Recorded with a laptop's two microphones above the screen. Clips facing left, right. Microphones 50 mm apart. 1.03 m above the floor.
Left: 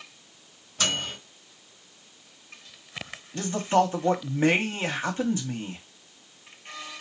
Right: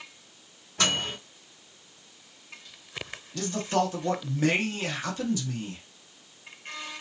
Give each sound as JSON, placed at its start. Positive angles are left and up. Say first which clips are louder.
{"t": 0.8, "sound": "a microwave", "louder": "right 1 dB", "side_deg": -80, "distance_m": 2.0}
{"t": 3.3, "sound": "a man speaking", "louder": "left 4 dB", "side_deg": 25, "distance_m": 0.7}